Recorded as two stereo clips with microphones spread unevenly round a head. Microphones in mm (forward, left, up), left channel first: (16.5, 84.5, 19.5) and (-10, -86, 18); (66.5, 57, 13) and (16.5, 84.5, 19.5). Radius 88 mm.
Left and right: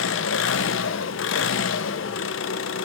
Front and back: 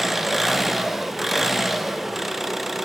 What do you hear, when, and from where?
0.0 s an engine running: 65° left, 1.0 m